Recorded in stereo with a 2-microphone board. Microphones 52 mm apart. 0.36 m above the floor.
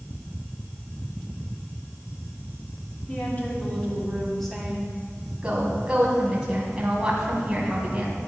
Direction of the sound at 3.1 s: 35° left (ahead or behind).